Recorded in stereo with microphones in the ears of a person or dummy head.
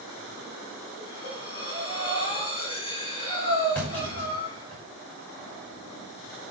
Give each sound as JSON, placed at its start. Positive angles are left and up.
{"t": 1.0, "sound": "breathing", "side_deg": 30, "distance_m": 5.0}
{"t": 3.8, "sound": "a clunk", "side_deg": 10, "distance_m": 8.5}